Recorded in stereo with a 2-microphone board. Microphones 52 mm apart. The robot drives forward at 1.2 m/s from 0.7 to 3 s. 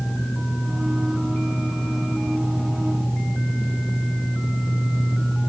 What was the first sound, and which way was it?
Only background noise.